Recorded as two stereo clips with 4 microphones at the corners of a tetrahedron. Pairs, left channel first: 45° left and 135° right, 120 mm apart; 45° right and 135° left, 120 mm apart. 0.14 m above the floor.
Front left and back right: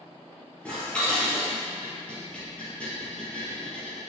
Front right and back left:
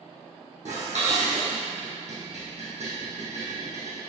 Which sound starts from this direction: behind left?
Dishes clattering, at 0.7 s.